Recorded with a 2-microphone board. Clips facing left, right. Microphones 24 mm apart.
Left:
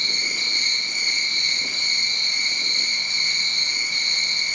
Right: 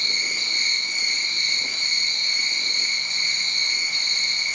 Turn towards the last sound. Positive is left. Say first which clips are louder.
# left 1 dB
turn(degrees=30)  # may be behind; listen again after turning